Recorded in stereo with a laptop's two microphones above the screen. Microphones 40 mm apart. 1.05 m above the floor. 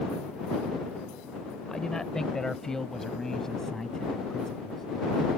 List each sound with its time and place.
1.7 s a man speaking: 15° left (ahead or behind); by 4.8 s 10° left (ahead or behind)